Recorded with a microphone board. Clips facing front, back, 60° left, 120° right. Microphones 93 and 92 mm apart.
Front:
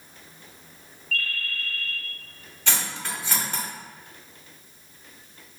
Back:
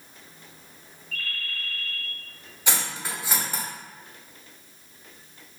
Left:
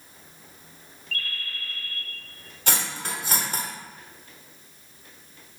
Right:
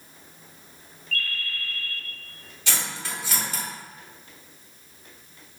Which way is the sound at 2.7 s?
105° left.